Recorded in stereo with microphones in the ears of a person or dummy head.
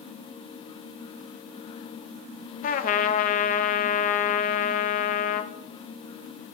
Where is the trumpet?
40° left (ahead or behind), 0.6 m.